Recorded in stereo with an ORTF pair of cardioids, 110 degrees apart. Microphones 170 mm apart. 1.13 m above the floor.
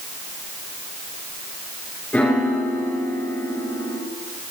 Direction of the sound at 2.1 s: 10° left.